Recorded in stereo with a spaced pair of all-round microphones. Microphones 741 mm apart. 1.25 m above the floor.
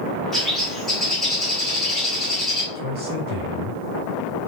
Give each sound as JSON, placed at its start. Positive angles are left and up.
{"t": 0.3, "sound": "a bird", "side_deg": 0, "distance_m": 1.4}
{"t": 2.8, "sound": "a man speaking", "side_deg": -80, "distance_m": 2.0}